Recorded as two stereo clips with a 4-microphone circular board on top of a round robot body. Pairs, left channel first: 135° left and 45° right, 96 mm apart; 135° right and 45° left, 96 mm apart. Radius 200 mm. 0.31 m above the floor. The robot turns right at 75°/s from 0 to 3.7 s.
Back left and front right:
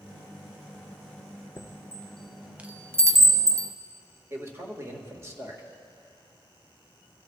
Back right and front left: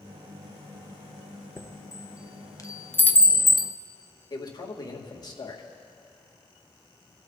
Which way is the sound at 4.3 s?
100° right.